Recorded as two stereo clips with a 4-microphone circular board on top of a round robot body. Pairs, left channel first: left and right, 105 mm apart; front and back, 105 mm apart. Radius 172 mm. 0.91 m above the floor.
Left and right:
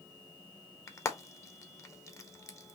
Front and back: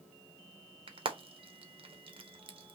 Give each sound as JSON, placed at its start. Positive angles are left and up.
{"t": 0.9, "sound": "frying", "azimuth_deg": 150, "distance_m": 1.2}